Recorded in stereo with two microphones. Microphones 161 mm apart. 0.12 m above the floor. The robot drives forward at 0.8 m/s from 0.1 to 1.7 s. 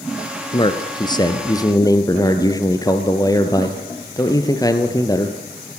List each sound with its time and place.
0.5 s a man speaking: 30° left (ahead or behind), 2 m; by 5.4 s 20° left (ahead or behind), 3 m